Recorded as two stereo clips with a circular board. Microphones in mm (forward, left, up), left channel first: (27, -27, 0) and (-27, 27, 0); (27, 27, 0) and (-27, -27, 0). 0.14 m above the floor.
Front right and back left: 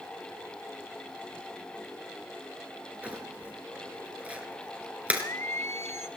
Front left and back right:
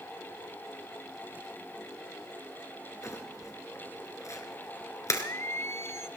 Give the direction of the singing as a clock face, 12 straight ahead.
12 o'clock.